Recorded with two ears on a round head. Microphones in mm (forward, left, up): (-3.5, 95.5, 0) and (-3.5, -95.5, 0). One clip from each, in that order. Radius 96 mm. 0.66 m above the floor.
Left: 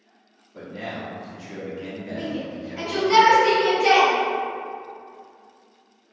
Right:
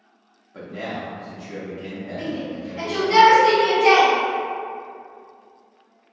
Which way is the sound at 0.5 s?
40° right (ahead or behind).